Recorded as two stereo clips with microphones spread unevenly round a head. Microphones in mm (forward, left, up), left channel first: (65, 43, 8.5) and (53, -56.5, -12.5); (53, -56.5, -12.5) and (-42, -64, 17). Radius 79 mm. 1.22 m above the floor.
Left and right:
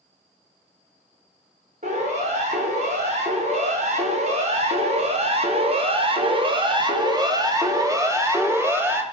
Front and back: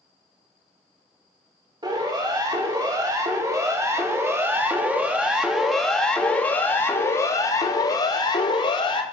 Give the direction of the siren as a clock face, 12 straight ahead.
4 o'clock.